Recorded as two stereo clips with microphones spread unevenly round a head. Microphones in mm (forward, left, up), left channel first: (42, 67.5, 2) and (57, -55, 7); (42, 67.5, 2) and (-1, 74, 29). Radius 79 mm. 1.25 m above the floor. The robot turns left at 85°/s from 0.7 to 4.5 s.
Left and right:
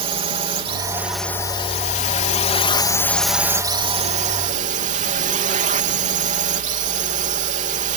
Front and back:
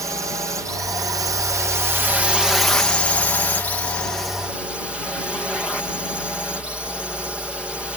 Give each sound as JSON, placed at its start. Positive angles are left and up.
{"t": 0.0, "sound": "a drone", "azimuth_deg": -135}